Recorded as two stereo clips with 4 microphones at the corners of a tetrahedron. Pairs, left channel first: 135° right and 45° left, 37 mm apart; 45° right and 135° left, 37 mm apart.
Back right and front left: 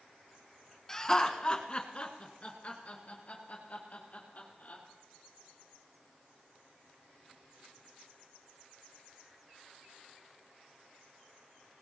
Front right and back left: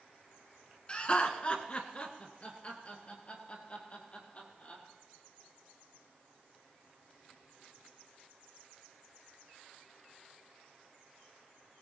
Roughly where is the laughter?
Right.